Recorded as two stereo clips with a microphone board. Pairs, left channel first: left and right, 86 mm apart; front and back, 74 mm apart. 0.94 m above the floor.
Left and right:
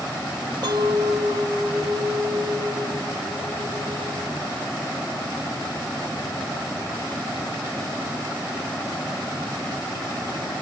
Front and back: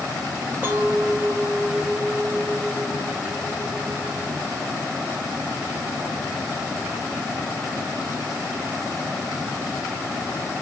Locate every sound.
0.6 s a clink: 115° right, 0.7 m